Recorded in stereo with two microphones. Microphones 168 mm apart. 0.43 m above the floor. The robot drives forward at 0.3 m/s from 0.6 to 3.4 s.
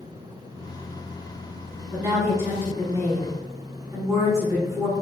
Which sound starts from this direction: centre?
A woman speaking, at 1.9 s.